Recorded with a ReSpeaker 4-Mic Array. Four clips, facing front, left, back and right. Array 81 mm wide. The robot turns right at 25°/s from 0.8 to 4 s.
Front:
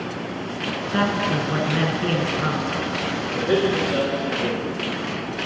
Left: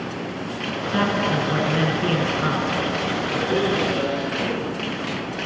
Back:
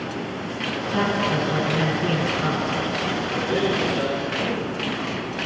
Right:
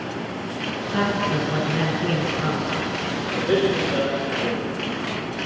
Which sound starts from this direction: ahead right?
A man speaking, at 3.3 s.